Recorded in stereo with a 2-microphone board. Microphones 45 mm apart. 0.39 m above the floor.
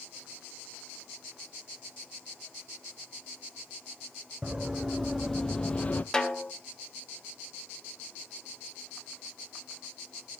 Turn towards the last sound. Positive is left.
turn(degrees=15)  # may be behind; listen again after turning